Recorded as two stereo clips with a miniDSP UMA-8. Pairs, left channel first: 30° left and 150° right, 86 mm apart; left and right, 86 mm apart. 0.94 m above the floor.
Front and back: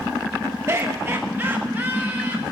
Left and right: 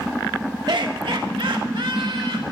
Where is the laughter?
100° right, 1.0 m; by 2.4 s 80° right, 2.5 m.